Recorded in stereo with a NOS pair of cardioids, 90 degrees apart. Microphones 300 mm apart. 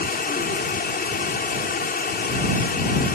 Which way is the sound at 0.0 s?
30° left.